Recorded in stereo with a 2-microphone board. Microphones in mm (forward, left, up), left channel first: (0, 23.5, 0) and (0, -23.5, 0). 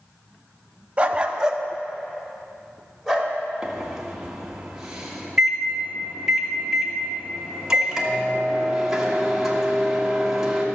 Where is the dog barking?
30° right (ahead or behind), 0.7 m; by 3.3 s centre (ahead or behind), 2.5 m.